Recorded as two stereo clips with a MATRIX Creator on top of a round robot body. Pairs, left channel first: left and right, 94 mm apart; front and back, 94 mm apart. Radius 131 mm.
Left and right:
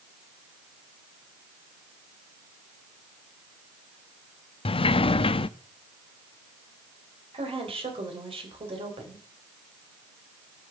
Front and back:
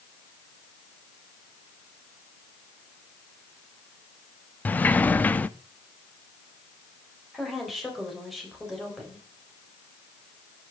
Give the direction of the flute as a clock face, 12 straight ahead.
I don't hear a flute.